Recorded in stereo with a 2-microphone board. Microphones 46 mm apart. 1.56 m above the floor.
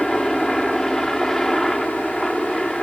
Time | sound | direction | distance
0.0 | a helicopter | 5° left (ahead or behind) | ?